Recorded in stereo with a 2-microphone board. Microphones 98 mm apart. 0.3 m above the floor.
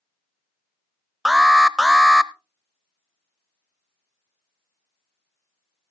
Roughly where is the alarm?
Centre.